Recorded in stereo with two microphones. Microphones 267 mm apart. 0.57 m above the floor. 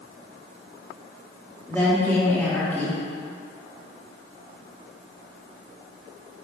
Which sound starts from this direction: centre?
A woman speaking, at 1.7 s.